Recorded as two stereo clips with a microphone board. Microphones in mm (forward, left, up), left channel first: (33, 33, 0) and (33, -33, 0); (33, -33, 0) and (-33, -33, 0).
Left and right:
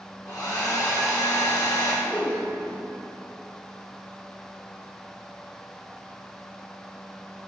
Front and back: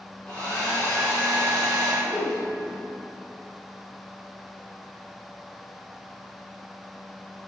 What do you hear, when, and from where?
0.2 s a hair dryer: 80° left, 1.7 m
2.0 s a whoosh: 110° left, 0.5 m